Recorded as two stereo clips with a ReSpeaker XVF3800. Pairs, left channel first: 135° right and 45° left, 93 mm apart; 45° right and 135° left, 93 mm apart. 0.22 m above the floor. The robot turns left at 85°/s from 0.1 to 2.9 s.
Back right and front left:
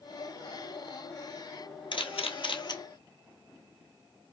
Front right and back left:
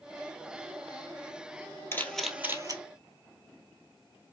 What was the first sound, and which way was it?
A camera shutter, 110° right.